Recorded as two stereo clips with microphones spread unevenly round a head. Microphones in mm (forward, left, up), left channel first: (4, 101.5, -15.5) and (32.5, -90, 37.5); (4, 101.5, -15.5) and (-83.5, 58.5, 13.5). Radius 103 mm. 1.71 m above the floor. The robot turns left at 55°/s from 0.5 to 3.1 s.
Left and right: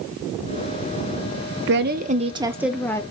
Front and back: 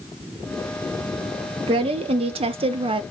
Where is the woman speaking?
110° right, 0.5 m; by 3.0 s straight behind, 0.5 m.